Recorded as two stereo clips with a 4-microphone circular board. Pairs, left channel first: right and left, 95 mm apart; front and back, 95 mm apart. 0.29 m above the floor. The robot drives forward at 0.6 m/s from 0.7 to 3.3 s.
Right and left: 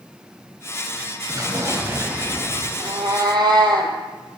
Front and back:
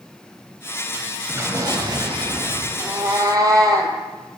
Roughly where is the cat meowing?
Behind left.